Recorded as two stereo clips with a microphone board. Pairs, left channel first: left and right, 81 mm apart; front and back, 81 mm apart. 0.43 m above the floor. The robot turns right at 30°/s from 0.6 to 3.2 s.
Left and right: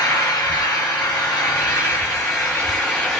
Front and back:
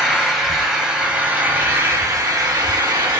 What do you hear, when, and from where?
0.0 s an engine running: 85° left, 1.6 m; by 3.2 s 160° left, 1.6 m